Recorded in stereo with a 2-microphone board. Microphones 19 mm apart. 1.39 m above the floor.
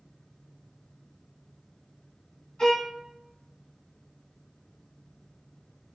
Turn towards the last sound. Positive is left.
turn(degrees=40)  # may be behind; listen again after turning